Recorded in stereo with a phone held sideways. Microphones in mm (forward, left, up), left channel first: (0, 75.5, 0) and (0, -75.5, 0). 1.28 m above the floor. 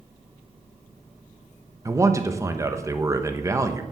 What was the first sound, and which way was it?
A man speaking, 20° right (ahead or behind).